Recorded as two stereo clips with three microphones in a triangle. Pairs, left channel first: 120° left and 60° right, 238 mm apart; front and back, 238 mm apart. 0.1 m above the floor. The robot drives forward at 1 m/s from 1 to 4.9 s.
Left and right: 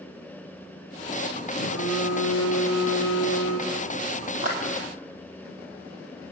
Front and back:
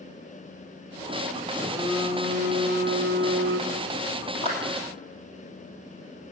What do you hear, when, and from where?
1.5 s a phone buzzing: 95° left, 1.6 m; by 4.0 s 150° left, 3 m
4.4 s a clap: 110° right, 2.5 m; by 4.6 s 115° right, 2.5 m